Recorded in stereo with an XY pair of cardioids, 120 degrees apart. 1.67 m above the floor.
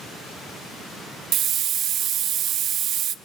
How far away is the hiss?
About 0.7 m.